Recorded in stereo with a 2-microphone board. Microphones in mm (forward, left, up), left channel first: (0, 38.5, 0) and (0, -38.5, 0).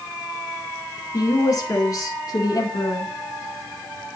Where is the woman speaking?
50° left (ahead or behind), 4.5 m; by 3.1 s 55° left (ahead or behind), 3.5 m.